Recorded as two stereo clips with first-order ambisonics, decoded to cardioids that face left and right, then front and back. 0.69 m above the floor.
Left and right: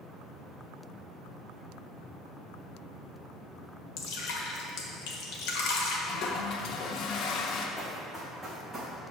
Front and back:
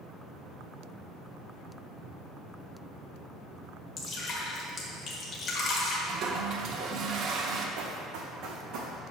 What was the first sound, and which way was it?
Dripping, 60° left.